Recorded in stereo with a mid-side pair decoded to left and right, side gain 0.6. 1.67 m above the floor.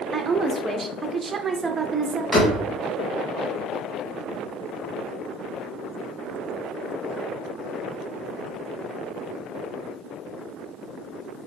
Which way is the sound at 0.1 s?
25° right.